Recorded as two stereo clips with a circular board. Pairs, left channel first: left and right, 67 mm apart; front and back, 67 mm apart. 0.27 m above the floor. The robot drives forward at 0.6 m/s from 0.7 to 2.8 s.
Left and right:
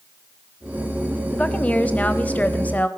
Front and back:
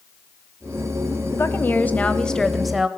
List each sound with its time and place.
1.3 s a woman speaking: 25° left, 1.3 m; by 2.9 s 105° left, 1.0 m